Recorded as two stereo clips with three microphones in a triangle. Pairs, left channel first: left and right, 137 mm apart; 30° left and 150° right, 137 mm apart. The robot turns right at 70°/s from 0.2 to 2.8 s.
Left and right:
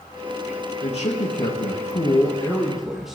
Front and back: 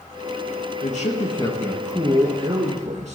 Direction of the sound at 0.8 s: 45° left.